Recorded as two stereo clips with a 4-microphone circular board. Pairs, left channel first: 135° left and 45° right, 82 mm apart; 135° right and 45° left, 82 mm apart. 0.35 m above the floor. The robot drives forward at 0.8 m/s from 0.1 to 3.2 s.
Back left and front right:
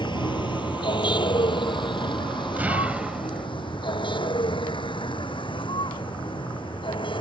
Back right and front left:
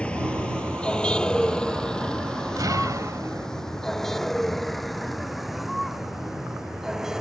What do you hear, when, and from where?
0.0 s a vehicle: 150° left; by 7.2 s 130° left
2.6 s an explosion: 20° left; by 3.5 s 30° left